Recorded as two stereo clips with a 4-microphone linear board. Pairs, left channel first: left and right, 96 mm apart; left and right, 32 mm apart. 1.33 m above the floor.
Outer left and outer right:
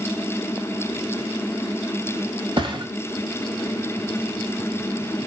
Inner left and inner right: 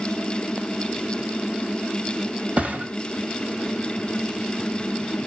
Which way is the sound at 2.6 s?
50° right (ahead or behind).